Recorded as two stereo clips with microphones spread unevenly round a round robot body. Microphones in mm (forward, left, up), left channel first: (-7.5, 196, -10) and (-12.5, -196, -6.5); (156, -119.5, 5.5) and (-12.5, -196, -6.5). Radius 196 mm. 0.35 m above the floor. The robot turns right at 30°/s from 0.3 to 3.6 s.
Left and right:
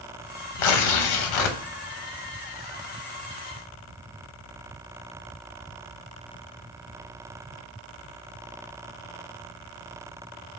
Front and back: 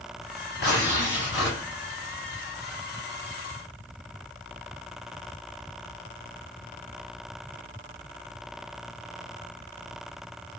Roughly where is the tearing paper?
Left.